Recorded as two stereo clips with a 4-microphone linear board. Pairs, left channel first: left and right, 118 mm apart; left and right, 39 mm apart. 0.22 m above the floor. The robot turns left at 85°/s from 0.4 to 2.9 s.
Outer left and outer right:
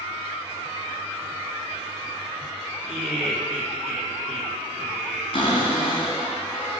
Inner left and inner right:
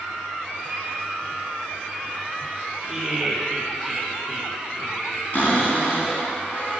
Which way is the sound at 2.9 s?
5° right (ahead or behind).